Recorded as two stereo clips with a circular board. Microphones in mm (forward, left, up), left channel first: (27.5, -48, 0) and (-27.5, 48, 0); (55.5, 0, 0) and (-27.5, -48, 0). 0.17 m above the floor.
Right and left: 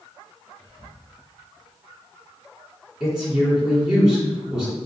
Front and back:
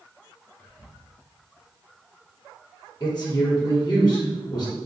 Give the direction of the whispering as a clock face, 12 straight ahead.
1 o'clock.